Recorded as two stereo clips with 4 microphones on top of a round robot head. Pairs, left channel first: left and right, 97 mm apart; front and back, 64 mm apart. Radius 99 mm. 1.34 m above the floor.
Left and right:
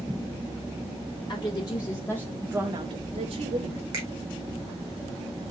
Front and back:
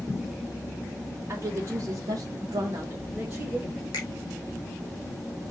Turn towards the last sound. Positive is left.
turn(degrees=-25)